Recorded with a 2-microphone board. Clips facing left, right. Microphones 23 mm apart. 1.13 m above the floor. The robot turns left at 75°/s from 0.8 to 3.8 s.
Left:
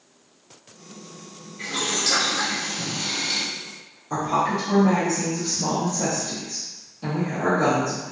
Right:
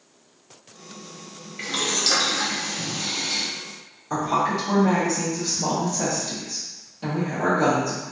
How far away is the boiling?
About 0.8 m.